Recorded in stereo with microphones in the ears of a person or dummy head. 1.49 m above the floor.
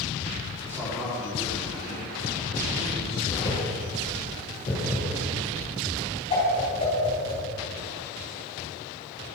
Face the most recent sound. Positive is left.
turn(degrees=30)  # may be behind; listen again after turning